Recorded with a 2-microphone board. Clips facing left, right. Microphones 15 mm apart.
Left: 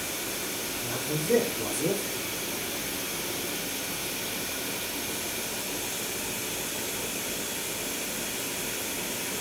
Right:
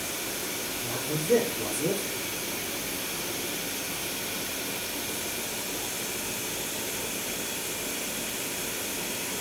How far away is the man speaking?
About 4 m.